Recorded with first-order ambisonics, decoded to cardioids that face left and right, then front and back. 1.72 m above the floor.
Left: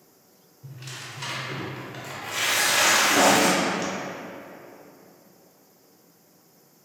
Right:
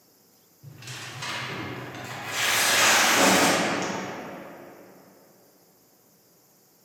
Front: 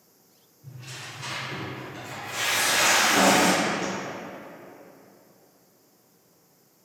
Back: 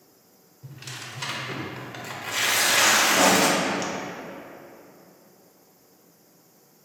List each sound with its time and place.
0.6 s tearing paper: 175° left, 0.5 m
3.1 s writing: 55° left, 0.8 m